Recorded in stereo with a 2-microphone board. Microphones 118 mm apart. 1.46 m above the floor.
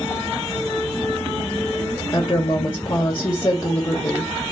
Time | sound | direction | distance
2.1 | a woman speaking | 35° left (ahead or behind) | 1.3 m